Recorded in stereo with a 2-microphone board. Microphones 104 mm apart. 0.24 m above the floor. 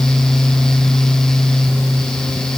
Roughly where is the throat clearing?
I don't hear throat clearing.